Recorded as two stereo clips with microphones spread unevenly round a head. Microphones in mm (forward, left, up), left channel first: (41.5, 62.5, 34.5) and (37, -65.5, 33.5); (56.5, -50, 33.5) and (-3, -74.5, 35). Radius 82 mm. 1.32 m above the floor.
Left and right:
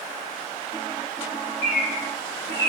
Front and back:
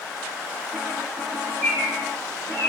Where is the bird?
90° left, 0.9 m.